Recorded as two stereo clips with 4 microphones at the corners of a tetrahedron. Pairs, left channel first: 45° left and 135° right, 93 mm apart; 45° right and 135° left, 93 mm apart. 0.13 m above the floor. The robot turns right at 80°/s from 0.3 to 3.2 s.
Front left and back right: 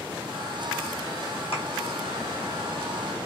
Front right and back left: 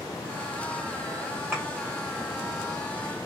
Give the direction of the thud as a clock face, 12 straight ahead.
10 o'clock.